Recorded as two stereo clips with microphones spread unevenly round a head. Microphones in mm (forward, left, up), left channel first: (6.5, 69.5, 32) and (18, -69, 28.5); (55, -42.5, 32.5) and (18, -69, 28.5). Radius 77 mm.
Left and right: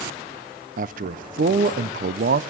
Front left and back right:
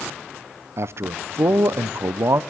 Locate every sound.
0.8 s a man speaking: 115° right, 0.7 m